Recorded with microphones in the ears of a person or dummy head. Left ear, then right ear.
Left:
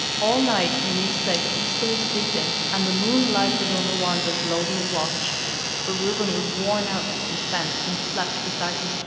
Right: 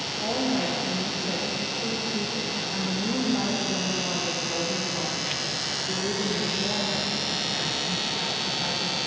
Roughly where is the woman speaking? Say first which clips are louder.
Left 7 dB; left.